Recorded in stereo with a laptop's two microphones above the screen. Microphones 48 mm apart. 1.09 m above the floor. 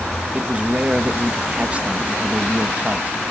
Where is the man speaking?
30° right (ahead or behind), 1.2 m.